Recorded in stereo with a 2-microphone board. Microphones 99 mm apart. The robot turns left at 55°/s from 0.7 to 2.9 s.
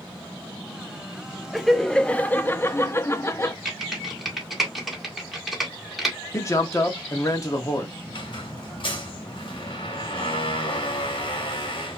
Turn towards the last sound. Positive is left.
turn(degrees=55)  # may be behind; listen again after turning